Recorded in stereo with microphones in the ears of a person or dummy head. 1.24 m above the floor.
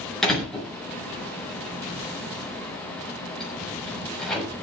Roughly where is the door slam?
Centre.